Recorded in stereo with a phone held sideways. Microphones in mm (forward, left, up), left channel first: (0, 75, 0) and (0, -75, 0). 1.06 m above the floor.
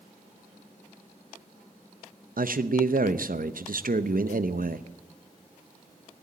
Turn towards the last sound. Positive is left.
turn(degrees=-70)  # may be behind; listen again after turning